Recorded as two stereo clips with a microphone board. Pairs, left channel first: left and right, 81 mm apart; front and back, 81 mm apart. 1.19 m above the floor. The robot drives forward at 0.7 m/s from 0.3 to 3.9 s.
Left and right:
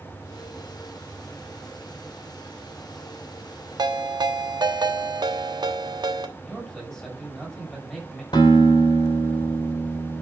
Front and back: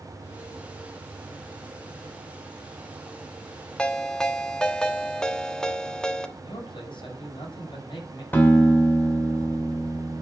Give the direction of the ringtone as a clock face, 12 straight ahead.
3 o'clock.